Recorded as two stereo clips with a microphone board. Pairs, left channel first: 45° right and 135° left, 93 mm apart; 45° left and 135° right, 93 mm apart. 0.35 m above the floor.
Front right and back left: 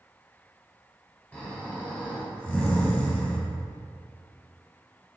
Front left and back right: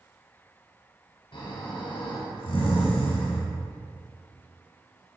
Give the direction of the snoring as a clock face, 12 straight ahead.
11 o'clock.